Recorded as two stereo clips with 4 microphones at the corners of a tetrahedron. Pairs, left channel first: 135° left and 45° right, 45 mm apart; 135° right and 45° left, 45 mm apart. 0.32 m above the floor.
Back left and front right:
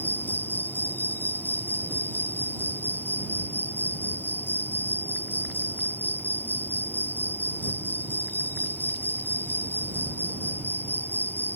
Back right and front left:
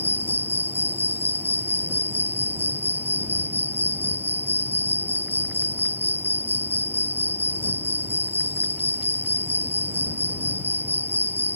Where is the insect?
90° left.